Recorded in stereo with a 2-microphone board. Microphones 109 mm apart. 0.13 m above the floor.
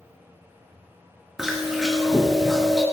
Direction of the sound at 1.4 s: 5° right (ahead or behind).